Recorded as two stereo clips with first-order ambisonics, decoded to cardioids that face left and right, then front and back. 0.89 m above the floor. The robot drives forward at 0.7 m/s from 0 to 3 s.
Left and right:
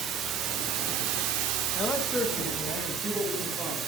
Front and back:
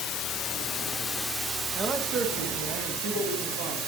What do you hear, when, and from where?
0.0 s running water: 35° right, 1.2 m; by 3.9 s 150° right, 1.4 m
1.8 s a man speaking: 125° left, 0.7 m; by 3.8 s 170° left, 1.3 m